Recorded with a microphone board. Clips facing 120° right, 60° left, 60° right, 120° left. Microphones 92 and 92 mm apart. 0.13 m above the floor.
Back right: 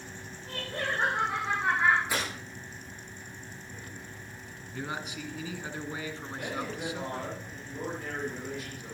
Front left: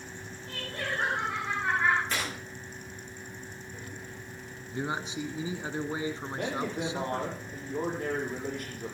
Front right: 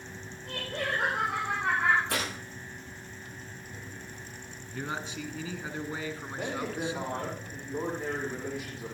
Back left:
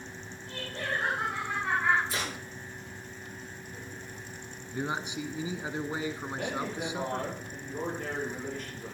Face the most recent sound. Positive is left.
turn(degrees=20)